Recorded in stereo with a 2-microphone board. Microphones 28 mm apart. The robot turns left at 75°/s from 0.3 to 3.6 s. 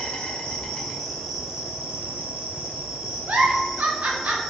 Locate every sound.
0.0 s an insect: 75° left, 1.2 m; by 4.5 s 170° right, 1.2 m
3.3 s a giggle: 80° right, 0.7 m; by 4.4 s 65° right (ahead or behind), 0.7 m